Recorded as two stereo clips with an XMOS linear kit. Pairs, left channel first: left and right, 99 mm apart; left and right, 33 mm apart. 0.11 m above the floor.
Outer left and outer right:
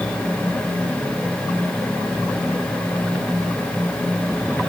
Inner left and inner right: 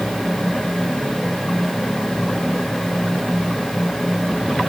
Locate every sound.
Only background noise.